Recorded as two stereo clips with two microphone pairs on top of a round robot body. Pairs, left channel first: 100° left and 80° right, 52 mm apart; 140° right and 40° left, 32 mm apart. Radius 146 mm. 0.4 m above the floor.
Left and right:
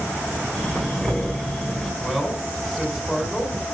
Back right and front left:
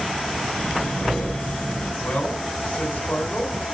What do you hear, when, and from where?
0.5 s breathing: 175° left, 5.5 m
2.0 s a man speaking: straight behind, 4 m